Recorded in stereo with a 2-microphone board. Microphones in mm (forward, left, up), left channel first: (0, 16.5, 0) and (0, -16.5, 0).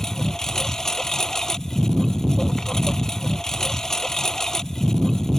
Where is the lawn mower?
20° left (ahead or behind).